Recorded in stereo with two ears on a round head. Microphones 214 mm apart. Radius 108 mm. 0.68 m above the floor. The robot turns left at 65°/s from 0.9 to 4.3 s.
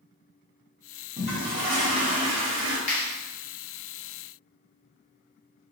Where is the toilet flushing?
20° right, 1.2 m; by 2.8 s 125° right, 1.2 m.